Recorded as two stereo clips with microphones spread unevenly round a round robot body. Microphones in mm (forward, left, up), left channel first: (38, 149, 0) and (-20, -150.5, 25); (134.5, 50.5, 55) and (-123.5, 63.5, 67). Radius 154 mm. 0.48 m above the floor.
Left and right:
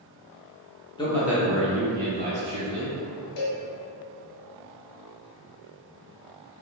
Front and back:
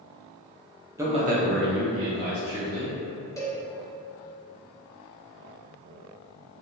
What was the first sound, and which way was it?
A man speaking, 105° left.